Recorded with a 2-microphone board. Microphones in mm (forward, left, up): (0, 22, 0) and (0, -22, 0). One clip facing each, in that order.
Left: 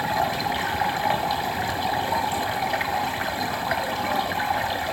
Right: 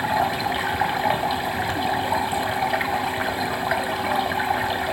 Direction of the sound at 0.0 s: 15° right (ahead or behind).